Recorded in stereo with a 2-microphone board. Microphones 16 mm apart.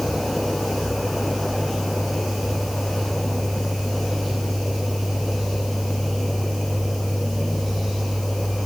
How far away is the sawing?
No sawing in this recording.